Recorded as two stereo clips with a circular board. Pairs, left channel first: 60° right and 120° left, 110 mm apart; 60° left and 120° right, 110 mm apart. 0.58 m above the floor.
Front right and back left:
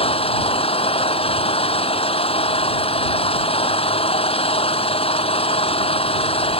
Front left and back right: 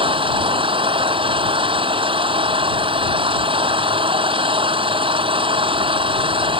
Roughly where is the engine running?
Right.